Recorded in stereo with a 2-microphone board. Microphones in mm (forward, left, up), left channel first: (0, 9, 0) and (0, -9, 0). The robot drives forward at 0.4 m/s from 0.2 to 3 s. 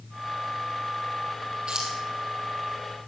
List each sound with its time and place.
1.7 s keys jangling: 50° right (ahead or behind), 3.5 m